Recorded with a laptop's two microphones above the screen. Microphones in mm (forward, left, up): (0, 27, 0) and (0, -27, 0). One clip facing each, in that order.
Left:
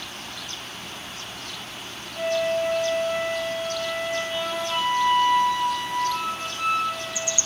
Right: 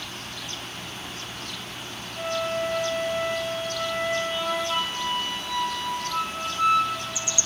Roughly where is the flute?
Left.